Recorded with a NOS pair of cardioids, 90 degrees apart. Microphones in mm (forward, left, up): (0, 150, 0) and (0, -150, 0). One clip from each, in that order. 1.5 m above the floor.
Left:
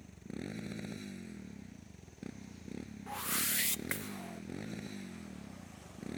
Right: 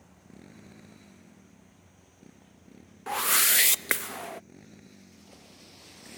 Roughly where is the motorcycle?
Ahead left.